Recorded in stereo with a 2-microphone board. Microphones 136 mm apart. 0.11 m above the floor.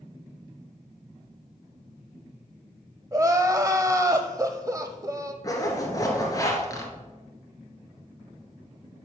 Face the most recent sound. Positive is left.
turn(degrees=25)  # may be behind; listen again after turning